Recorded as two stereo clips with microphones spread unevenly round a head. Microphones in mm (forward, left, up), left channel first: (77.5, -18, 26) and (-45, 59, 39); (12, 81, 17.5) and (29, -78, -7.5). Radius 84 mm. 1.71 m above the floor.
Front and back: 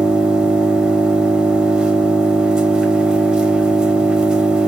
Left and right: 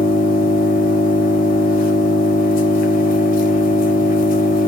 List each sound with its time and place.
0.0 s an engine running: 65° left, 1.1 m